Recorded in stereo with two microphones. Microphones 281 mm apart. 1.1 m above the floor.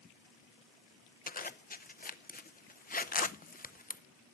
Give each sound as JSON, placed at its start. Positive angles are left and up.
{"t": 1.3, "sound": "a zipper", "side_deg": 30, "distance_m": 0.5}